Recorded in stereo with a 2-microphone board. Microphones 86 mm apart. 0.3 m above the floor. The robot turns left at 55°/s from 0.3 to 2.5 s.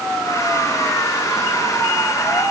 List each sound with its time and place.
Only background noise.